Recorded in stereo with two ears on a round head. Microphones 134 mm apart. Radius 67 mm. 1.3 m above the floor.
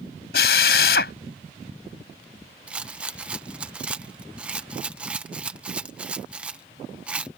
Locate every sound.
0.3 s a drill: 80° left
2.7 s a rattle: 10° right (ahead or behind)